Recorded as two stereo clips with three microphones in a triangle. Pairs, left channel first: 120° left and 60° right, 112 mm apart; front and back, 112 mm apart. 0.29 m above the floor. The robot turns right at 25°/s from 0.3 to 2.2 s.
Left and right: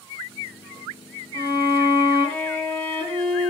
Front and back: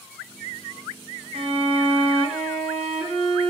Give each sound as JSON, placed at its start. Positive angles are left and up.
{"t": 1.3, "sound": "a violin", "azimuth_deg": 175, "distance_m": 2.0}